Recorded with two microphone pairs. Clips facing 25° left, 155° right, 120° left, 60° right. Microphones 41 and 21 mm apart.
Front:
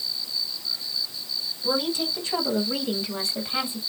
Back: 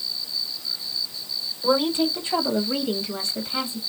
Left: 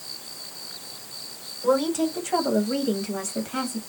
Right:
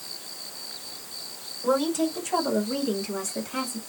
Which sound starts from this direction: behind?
A woman speaking, at 1.6 s.